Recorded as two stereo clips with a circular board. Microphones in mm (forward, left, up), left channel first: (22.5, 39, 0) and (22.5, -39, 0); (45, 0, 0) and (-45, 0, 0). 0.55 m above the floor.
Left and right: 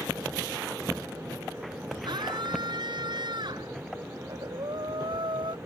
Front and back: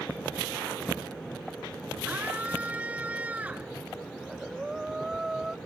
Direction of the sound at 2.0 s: 105° right.